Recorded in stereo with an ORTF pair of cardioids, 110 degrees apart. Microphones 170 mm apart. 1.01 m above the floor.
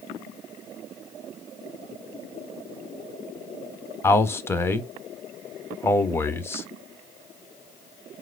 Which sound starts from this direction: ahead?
A man speaking, at 4.0 s.